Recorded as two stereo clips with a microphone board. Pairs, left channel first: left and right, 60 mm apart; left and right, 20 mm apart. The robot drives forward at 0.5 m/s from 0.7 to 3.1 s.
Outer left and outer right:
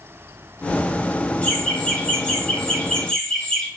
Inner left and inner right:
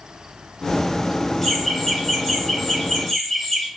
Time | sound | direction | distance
1.4 | laughter | 20° left (ahead or behind) | 1.4 m